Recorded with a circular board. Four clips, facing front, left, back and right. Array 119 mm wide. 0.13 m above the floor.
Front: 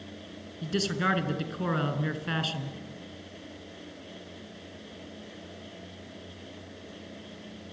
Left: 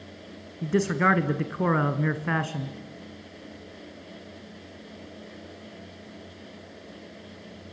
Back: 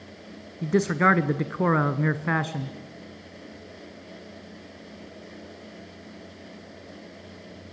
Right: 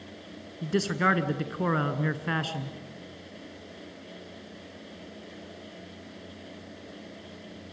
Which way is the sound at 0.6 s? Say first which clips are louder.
Left 3 dB, back 8 dB; 165° left.